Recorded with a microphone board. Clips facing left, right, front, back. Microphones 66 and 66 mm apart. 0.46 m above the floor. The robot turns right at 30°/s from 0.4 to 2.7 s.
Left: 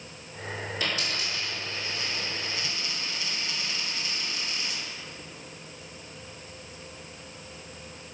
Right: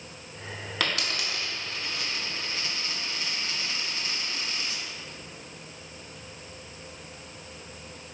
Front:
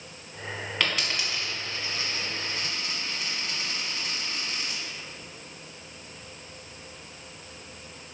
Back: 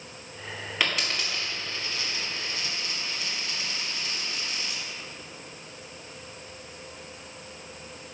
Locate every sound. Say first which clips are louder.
0.8 s a dropped coin: right 3 dB, back 1 dB; 95° right, 1.5 m; by 4.8 s 40° right, 1.5 m